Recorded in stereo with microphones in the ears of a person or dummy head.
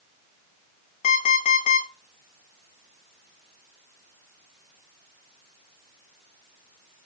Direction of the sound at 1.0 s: 50° left (ahead or behind).